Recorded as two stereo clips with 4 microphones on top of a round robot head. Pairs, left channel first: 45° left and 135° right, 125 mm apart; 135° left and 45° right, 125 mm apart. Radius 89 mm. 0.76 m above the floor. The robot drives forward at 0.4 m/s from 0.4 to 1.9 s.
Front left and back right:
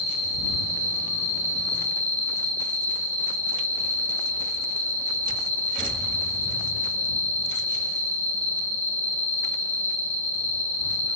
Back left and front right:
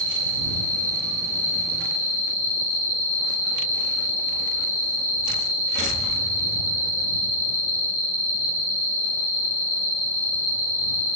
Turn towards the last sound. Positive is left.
turn(degrees=125)